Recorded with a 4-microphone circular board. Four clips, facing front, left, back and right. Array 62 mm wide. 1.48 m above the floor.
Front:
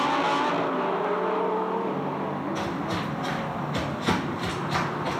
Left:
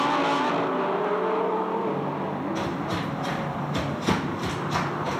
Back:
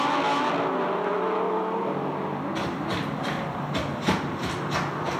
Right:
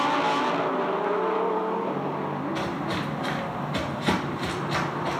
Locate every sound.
2.5 s footsteps: 145° right, 1.6 m; by 5.2 s 35° right, 1.7 m